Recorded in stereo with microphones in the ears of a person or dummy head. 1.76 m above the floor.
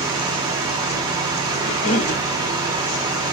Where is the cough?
40° left (ahead or behind), 1.2 m.